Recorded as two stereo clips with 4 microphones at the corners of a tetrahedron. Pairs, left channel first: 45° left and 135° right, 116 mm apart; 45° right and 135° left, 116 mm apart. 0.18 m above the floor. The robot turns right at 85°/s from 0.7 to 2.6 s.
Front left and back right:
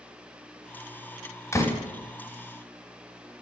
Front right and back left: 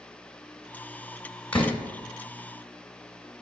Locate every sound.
1.5 s a door slam: 20° left, 0.9 m; by 1.8 s 40° left, 0.9 m